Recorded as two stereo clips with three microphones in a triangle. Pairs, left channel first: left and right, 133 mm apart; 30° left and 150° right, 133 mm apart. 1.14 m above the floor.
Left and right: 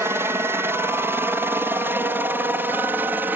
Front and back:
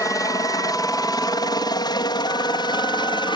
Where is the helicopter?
25° right; by 3.4 s 15° right.